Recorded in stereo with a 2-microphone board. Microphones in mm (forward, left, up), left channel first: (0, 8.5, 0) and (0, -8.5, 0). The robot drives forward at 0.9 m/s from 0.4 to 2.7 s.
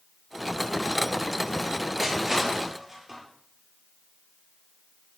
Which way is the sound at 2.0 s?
25° right (ahead or behind).